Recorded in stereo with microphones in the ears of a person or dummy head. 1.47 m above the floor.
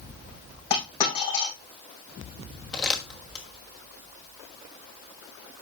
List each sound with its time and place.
0.7 s a dropped coin: 35° left (ahead or behind), 6 m
2.7 s crumpling: 5° right (ahead or behind), 1.3 m